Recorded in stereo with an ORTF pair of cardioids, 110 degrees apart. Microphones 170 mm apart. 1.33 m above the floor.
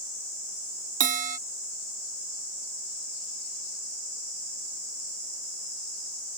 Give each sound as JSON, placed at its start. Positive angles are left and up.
{"t": 1.0, "sound": "a bell", "azimuth_deg": -50}